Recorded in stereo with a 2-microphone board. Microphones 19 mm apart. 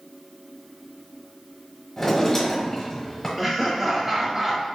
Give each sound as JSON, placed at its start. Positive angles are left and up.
{"t": 2.0, "sound": "a drawer", "side_deg": 20, "distance_m": 1.0}
{"t": 3.4, "sound": "laughter", "side_deg": -15, "distance_m": 0.9}